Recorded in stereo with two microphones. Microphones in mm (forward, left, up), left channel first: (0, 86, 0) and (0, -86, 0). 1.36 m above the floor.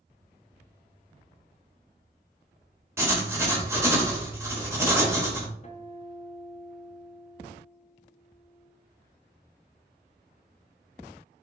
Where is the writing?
15° right (ahead or behind), 0.8 m.